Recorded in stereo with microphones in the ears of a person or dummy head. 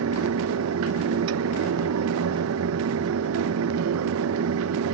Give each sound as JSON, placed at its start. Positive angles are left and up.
{"t": 0.0, "sound": "a fan", "side_deg": -70, "distance_m": 1.0}